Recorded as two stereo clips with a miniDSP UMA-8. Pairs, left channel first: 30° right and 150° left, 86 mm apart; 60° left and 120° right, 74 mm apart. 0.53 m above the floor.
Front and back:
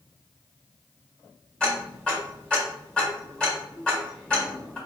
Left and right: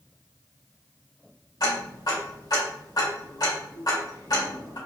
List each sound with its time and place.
1.6 s ticking: 50° left, 1.8 m